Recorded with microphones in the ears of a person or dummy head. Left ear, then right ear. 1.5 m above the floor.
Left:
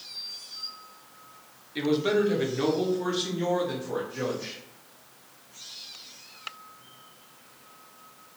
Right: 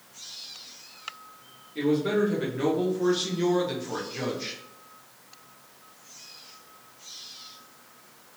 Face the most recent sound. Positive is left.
turn(degrees=-35)  # may be behind; listen again after turning